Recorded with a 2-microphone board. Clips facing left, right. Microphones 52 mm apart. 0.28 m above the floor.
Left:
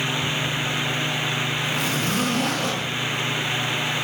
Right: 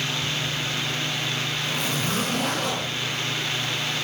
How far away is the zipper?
About 6.5 m.